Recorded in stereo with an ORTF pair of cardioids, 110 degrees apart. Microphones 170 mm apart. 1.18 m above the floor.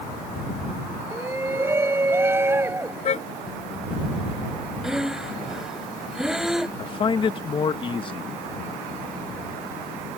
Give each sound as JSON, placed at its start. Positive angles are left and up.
{"t": 1.1, "sound": "a shout", "azimuth_deg": -15}
{"t": 3.0, "sound": "a car horn", "azimuth_deg": 40}
{"t": 4.8, "sound": "breathing", "azimuth_deg": -5}
{"t": 6.8, "sound": "a man speaking", "azimuth_deg": 30}